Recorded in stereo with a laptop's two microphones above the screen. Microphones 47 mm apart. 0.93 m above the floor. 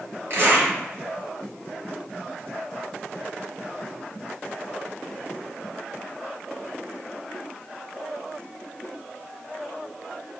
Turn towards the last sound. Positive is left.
turn(degrees=-60)  # may be behind; listen again after turning